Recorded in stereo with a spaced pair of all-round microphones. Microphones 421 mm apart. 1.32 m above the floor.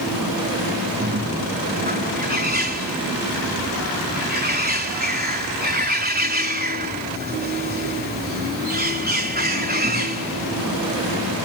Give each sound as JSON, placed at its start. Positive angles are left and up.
{"t": 1.0, "sound": "a bird", "side_deg": -20}